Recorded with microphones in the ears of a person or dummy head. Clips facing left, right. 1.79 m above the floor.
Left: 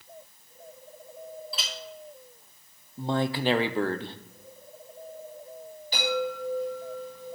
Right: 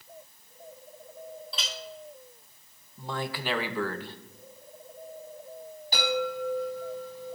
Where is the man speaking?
30° left (ahead or behind), 0.8 m.